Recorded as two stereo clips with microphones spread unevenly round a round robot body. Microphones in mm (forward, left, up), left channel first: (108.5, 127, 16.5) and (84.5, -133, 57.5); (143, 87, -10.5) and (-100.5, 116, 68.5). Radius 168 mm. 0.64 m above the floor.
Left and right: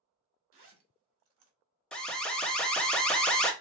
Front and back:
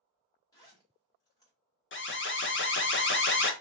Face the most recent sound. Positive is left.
turn(degrees=5)